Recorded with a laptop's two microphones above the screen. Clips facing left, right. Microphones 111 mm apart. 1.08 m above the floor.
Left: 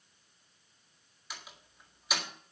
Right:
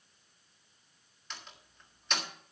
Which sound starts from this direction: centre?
A door slam, at 1.3 s.